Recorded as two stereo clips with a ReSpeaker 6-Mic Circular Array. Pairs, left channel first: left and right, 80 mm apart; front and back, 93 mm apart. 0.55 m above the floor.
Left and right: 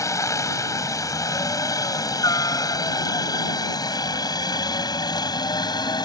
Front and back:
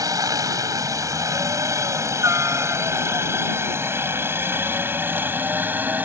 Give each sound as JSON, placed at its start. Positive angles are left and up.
{"t": 0.0, "sound": "a helicopter", "azimuth_deg": 135}